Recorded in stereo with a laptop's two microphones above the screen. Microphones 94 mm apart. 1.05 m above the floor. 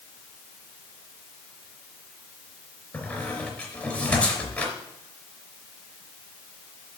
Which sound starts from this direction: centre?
A squeak, at 2.9 s.